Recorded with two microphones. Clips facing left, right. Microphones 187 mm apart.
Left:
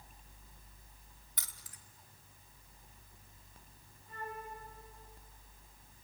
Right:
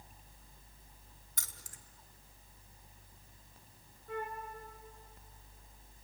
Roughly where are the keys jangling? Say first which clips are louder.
Right 2 dB; right.